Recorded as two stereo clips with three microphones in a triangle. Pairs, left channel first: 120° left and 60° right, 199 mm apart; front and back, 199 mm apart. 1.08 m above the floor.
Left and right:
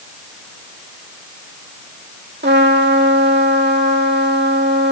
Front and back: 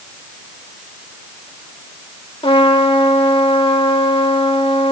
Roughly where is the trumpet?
Ahead right.